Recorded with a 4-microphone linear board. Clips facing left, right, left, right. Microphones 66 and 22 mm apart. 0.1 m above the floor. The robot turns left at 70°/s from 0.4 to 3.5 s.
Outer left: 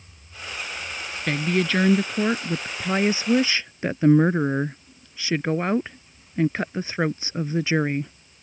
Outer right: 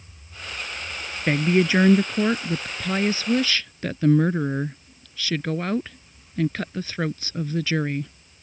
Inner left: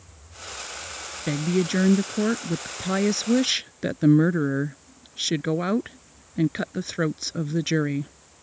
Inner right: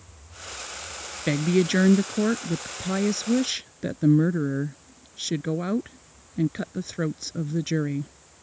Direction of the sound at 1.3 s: 20° right (ahead or behind).